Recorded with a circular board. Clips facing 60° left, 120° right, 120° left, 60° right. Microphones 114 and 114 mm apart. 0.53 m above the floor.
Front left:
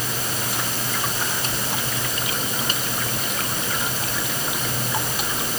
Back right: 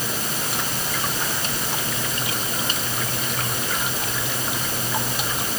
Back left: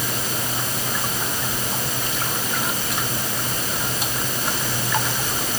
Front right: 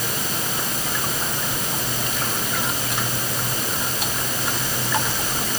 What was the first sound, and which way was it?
Only background noise.